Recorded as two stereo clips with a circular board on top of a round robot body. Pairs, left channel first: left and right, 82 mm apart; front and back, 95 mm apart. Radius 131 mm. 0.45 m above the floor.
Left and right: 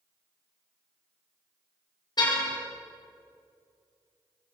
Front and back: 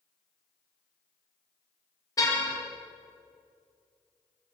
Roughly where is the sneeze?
No sneeze in this recording.